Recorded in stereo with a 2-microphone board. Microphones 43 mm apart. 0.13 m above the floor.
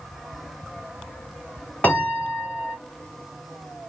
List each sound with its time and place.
1.8 s a piano: 40° left (ahead or behind), 3 m